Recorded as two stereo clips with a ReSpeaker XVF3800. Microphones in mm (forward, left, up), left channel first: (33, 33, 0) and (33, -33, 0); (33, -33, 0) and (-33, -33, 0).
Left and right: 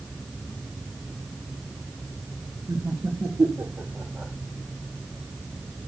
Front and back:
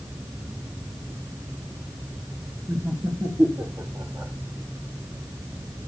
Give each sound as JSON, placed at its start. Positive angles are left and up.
{"t": 2.7, "sound": "laughter", "azimuth_deg": -130, "distance_m": 2.5}